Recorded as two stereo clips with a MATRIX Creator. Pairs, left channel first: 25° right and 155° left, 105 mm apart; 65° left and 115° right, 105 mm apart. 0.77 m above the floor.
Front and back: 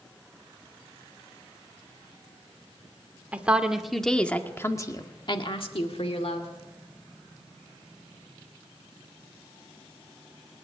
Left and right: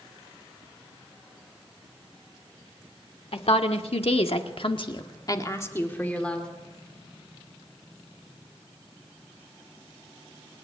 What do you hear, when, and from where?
3.3 s a woman speaking: 80° left, 2 m; by 6.5 s 15° right, 2 m